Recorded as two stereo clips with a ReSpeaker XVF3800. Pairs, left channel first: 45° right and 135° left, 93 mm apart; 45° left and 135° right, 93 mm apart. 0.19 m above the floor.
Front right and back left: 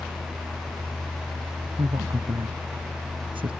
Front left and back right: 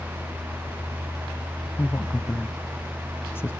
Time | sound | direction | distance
1.8 | a woman speaking | 110° left | ?